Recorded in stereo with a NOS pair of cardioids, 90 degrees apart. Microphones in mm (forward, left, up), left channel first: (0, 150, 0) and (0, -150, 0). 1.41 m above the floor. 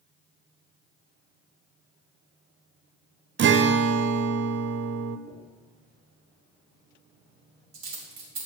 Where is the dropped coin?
65° right, 2.5 m.